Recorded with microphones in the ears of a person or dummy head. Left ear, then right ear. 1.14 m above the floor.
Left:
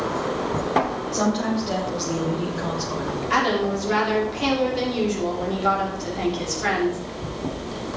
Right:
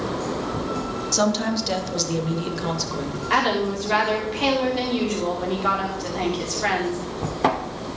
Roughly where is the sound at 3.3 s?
Centre.